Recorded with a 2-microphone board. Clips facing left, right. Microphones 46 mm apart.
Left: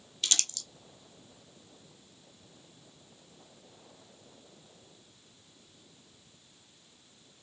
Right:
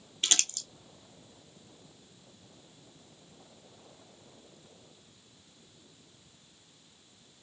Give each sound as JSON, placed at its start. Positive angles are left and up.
{"t": 0.2, "sound": "crumpling", "side_deg": -35, "distance_m": 0.6}